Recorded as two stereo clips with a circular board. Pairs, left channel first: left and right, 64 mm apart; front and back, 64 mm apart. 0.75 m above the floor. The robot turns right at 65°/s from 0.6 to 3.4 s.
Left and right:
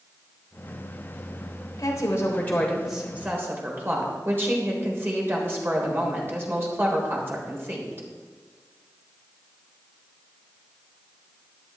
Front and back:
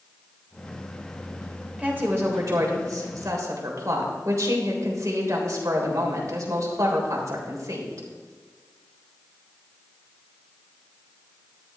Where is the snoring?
I don't hear snoring.